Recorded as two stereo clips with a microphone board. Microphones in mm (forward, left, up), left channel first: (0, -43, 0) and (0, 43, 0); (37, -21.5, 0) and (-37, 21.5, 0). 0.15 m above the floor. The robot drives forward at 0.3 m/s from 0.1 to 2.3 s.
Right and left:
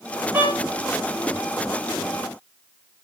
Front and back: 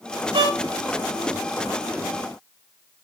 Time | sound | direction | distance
0.3 | a violin | 160° left | 1.8 m